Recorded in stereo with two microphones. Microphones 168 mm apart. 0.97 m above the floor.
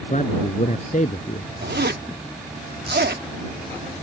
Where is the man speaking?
45° left (ahead or behind).